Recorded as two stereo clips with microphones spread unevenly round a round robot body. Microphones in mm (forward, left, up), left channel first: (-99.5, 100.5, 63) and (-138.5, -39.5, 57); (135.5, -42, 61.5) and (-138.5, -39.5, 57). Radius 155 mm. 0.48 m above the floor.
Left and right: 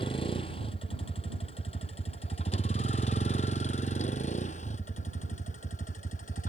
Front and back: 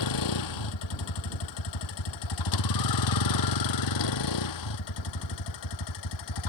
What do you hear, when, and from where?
0.0 s a vehicle: 5° left; by 6.5 s 15° left